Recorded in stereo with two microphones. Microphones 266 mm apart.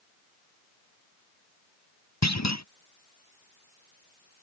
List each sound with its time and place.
2.2 s a clunk: 85° left